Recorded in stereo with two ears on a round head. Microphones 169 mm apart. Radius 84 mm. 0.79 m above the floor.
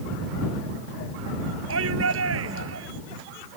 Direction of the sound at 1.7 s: 85° right.